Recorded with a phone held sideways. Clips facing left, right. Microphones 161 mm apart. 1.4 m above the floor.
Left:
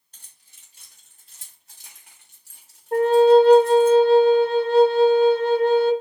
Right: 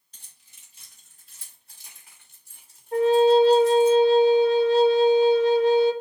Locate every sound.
0.1 s keys jangling: 65° left (ahead or behind), 3.5 m; by 3.9 s 50° left (ahead or behind), 1.5 m
2.9 s a flute: 55° left (ahead or behind), 0.6 m